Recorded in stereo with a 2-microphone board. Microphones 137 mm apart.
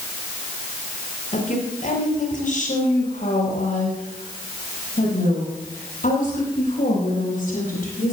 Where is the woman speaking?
60° left (ahead or behind), 7 m; by 8.2 s 65° left (ahead or behind), 11 m.